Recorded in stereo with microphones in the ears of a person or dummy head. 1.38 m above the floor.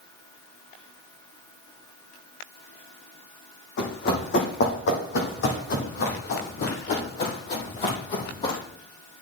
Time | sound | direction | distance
3.8 | running footsteps | 50° left (ahead or behind) | 3 m